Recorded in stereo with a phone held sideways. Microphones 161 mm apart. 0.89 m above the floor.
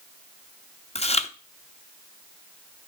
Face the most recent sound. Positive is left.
turn(degrees=40)  # may be behind; listen again after turning